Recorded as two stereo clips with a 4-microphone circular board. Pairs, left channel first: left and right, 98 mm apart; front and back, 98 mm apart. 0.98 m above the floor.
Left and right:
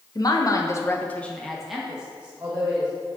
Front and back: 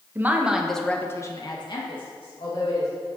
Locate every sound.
0.1 s a woman speaking: 120° left, 1.0 m; by 2.9 s 20° right, 1.9 m